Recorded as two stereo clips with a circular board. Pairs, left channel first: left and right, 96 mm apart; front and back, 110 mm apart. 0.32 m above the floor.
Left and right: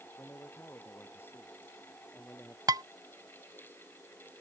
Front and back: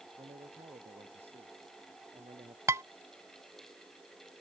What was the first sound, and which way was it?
A man speaking, 155° left.